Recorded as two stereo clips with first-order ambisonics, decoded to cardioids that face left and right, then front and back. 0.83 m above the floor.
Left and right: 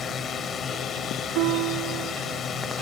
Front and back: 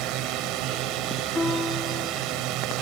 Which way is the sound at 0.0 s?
150° left.